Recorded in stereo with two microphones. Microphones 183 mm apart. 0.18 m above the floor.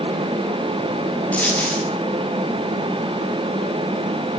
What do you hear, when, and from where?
1.3 s a dropped coin: 5° left (ahead or behind), 6.5 m